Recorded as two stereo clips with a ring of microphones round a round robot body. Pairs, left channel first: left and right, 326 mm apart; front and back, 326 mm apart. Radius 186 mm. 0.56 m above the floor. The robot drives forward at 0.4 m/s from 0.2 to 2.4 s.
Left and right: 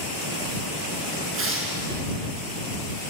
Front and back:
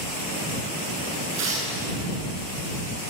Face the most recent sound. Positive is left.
turn(degrees=-140)